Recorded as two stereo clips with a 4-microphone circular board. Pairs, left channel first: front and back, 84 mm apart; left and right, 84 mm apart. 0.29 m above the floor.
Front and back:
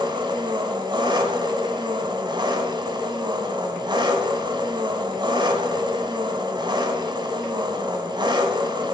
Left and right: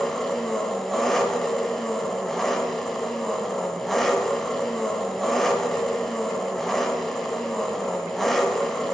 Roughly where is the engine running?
Behind.